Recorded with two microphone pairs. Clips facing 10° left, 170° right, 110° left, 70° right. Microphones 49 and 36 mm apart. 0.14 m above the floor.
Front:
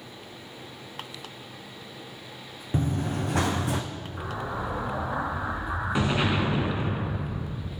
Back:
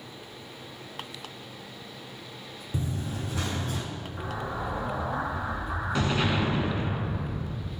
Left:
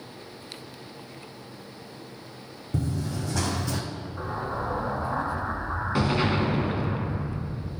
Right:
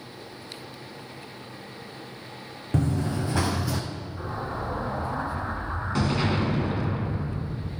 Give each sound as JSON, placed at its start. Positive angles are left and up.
{"t": 2.7, "sound": "running footsteps", "azimuth_deg": -35, "distance_m": 0.8}
{"t": 4.2, "sound": "an explosion", "azimuth_deg": 65, "distance_m": 0.8}